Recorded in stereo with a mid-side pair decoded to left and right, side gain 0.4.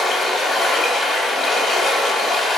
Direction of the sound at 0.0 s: 65° left.